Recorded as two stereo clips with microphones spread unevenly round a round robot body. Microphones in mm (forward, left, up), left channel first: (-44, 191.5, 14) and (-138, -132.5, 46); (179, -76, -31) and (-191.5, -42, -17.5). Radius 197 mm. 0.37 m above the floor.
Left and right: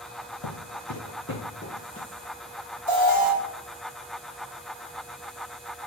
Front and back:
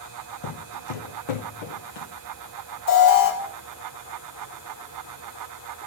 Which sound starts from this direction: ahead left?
Footsteps, at 0.4 s.